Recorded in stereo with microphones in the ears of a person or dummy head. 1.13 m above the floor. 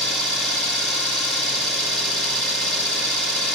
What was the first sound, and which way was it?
An engine running, centre (ahead or behind).